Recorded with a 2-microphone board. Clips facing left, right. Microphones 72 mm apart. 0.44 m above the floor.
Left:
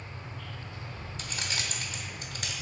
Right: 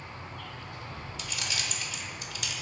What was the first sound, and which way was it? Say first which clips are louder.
An insect: right 2 dB; 70° right (ahead or behind).